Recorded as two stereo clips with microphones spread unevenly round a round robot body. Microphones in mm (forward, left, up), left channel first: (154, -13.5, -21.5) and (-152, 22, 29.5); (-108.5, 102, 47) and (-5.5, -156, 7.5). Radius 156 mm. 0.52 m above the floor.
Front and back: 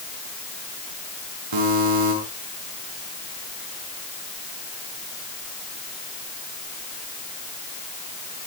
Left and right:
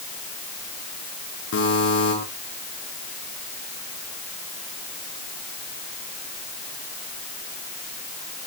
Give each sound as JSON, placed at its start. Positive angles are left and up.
{"t": 1.5, "sound": "a buzzer", "azimuth_deg": 155, "distance_m": 7.5}